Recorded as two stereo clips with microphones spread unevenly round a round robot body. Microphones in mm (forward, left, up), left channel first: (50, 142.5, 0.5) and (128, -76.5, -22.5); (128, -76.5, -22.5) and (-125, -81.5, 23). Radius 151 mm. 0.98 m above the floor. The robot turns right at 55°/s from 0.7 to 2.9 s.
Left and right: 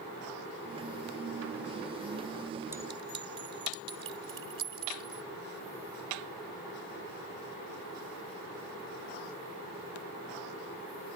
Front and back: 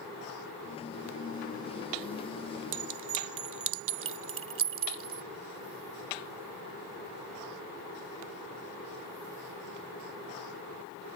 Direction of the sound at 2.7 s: 155° right.